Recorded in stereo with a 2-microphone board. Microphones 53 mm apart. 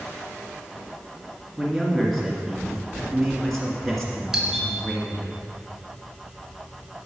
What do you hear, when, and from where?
1.6 s a man speaking: 5° left (ahead or behind), 2 m
4.3 s a doorbell: 5° right (ahead or behind), 1.9 m